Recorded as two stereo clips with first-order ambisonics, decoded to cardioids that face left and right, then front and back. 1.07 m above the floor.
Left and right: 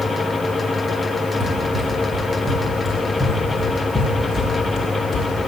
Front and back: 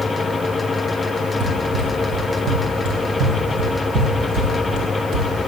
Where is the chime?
I don't hear a chime.